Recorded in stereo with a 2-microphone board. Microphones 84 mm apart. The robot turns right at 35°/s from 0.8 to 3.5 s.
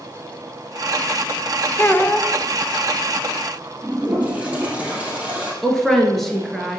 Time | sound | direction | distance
1.8 | a child speaking | 25° left (ahead or behind) | 0.7 m
3.8 | a toilet flushing | 15° right (ahead or behind) | 3.5 m
5.6 | a woman speaking | centre (ahead or behind) | 2.0 m